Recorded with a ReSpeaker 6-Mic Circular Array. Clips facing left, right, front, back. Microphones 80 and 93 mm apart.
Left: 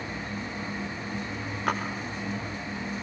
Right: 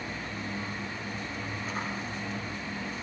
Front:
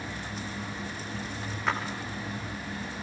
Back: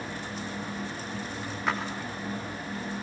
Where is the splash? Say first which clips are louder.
Left 10 dB, even; 90° left, 6.5 m.